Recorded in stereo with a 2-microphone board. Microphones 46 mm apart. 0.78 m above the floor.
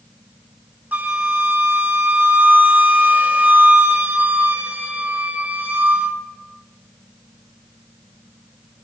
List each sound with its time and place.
0.9 s a flute: 40° right (ahead or behind), 1.4 m